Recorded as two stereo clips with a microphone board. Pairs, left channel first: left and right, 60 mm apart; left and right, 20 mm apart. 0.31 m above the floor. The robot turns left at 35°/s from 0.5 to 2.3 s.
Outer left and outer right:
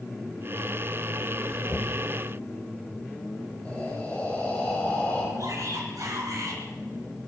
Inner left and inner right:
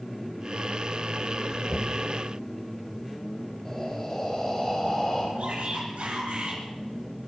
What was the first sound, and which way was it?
Knocking, 20° left (ahead or behind).